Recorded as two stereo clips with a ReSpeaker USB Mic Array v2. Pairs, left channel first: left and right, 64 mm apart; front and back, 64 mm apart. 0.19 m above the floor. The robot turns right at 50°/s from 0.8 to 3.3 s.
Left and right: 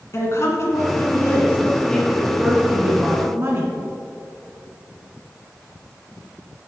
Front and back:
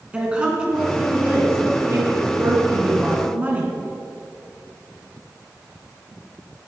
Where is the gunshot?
No gunshot in this recording.